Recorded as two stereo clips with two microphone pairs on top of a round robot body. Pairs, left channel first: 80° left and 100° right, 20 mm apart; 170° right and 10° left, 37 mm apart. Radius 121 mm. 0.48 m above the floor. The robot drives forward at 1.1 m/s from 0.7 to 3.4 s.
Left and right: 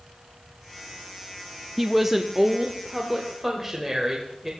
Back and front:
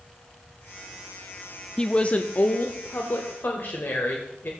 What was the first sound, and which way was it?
A woman speaking, 140° right.